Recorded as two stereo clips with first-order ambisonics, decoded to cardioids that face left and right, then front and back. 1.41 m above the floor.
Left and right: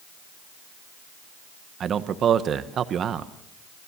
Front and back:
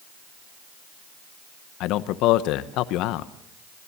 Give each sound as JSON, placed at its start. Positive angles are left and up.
{"t": 1.8, "sound": "a man speaking", "azimuth_deg": -30, "distance_m": 0.9}